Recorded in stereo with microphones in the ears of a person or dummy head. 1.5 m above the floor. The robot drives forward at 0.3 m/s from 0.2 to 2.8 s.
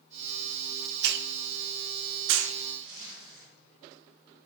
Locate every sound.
1.0 s a hiss: 65° right (ahead or behind), 0.8 m; by 2.6 s 80° right, 0.7 m
2.8 s a zipper: 70° right (ahead or behind), 5 m